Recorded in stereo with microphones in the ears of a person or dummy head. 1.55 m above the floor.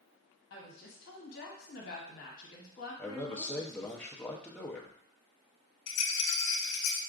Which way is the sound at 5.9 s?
85° left.